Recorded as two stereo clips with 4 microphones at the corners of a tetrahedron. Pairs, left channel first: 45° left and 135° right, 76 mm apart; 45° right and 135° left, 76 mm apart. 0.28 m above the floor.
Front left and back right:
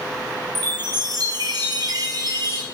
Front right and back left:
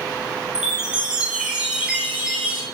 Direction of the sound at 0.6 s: 145° right.